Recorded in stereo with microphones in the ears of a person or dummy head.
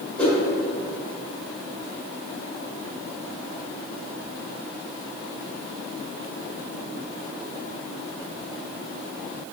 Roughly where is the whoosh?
Centre.